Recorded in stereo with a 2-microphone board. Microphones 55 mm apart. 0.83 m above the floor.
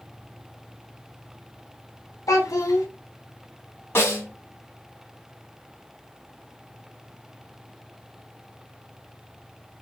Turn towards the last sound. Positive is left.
turn(degrees=45)  # may be behind; listen again after turning